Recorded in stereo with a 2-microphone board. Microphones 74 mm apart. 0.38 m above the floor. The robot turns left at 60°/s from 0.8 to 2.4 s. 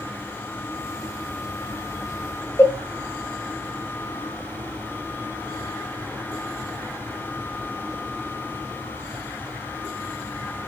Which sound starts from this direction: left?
A cowbell, at 2.6 s.